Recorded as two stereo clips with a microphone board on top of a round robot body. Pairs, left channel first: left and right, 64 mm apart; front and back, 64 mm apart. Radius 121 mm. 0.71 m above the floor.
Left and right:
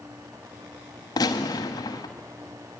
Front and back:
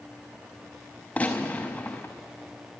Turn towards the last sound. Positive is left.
turn(degrees=75)